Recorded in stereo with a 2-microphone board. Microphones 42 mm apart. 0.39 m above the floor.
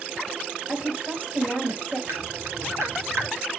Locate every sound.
0.7 s a woman speaking: 45° right (ahead or behind), 3.5 m
2.1 s dripping: 85° right, 1.7 m